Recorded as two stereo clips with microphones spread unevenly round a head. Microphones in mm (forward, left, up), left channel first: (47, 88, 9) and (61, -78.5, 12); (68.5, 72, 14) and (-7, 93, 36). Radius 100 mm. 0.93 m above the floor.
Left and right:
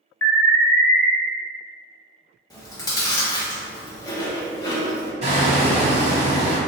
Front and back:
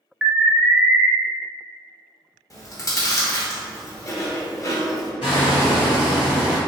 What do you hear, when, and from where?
0.2 s an alarm: 50° left, 0.7 m
2.5 s chewing: 25° left, 1.2 m
5.2 s hammering: 45° right, 1.1 m